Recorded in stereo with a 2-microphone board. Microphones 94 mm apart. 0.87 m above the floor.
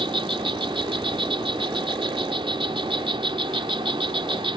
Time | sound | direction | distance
0.0 | an insect | 70° right (ahead or behind) | ?